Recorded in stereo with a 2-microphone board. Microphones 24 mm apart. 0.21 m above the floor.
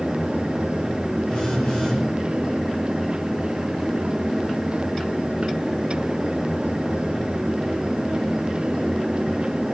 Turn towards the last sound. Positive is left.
turn(degrees=25)  # may be behind; listen again after turning